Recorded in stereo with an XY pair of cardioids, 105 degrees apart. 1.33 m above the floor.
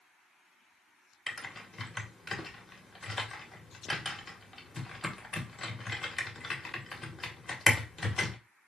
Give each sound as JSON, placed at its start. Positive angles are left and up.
{"t": 1.3, "sound": "typing on a keyboard", "azimuth_deg": 20, "distance_m": 1.1}